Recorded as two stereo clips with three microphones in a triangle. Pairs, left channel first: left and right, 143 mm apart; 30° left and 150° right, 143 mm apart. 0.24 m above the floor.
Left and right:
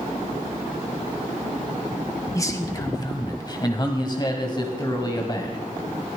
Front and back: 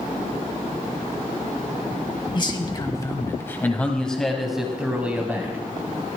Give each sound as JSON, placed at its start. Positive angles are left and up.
{"t": 2.4, "sound": "a man speaking", "azimuth_deg": 45, "distance_m": 1.7}